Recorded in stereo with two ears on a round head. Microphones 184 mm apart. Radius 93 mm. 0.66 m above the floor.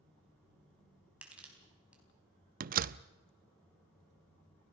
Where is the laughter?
No laughter in this recording.